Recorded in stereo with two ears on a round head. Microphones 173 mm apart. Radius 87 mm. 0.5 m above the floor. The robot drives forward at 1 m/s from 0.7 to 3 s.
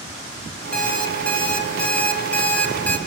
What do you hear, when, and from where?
0.7 s an alarm clock: 5° left (ahead or behind), 5.5 m; by 3.0 s 10° left (ahead or behind), 3.5 m